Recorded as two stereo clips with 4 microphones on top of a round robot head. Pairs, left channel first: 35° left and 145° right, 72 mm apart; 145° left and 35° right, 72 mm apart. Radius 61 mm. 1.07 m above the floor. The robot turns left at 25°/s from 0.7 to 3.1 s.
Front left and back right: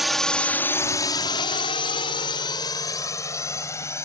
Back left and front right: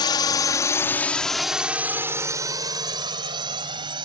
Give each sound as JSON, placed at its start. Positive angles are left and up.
{"t": 0.0, "sound": "a drone", "azimuth_deg": 130}